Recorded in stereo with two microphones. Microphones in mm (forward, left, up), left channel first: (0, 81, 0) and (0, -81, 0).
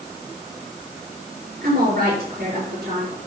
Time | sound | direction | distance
1.6 | a woman speaking | 70° right (ahead or behind) | 4.5 m